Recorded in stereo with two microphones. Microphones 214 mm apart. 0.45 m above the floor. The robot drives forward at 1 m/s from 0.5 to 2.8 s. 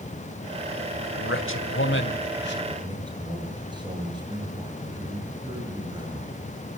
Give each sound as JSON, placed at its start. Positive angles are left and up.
{"t": 1.1, "sound": "a man speaking", "side_deg": 65, "distance_m": 2.5}
{"t": 2.8, "sound": "a man speaking", "side_deg": -20, "distance_m": 9.0}